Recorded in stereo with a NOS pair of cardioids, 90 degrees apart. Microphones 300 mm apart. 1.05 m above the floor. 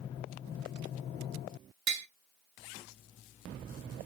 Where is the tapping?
70° right, 1.2 m.